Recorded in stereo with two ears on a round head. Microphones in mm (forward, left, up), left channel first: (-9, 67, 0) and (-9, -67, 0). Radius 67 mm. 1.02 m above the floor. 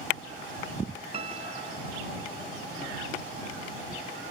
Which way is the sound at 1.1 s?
45° right (ahead or behind).